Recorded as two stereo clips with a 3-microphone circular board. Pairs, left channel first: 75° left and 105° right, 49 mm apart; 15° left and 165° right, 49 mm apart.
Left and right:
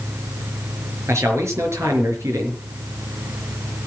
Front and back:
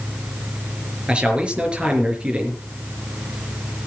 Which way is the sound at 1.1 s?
100° right.